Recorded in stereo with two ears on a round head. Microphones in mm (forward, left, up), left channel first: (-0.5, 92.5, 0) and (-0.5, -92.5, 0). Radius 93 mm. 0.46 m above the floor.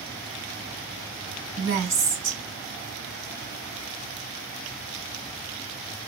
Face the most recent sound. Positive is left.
turn(degrees=-65)  # may be behind; listen again after turning